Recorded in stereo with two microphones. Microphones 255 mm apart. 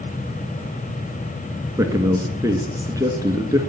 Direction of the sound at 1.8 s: 10° right (ahead or behind).